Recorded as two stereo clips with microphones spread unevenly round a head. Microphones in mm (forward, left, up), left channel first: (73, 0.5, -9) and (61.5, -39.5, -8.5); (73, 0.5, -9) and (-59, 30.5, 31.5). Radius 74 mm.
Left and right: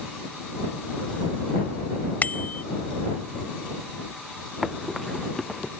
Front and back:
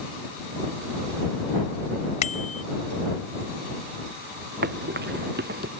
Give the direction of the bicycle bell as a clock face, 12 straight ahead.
11 o'clock.